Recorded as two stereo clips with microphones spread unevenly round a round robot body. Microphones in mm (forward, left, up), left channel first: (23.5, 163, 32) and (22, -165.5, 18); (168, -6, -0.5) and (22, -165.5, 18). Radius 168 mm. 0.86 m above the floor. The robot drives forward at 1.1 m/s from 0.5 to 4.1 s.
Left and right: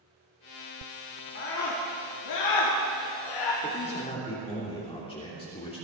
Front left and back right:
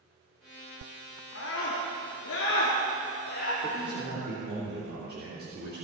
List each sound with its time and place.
1.4 s a scream: 40° left, 3 m; by 3.5 s 95° left, 1.9 m
3.6 s a man speaking: 160° left, 2.5 m; by 5.8 s 165° left, 3 m